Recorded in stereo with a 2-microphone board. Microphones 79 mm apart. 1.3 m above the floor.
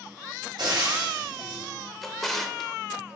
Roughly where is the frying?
Right.